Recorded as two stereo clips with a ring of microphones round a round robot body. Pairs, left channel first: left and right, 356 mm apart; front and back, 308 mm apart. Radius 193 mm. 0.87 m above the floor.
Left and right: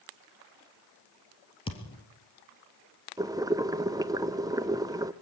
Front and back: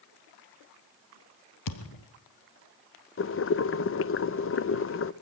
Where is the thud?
15° left, 2 m.